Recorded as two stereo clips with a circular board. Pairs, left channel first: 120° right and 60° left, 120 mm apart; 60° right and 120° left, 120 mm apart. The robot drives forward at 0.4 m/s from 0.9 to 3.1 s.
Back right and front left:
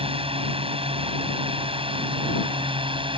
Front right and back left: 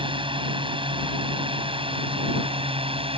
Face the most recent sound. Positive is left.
turn(degrees=95)